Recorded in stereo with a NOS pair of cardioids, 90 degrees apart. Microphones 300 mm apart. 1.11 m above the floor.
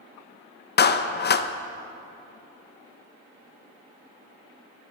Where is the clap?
35° left, 0.6 m.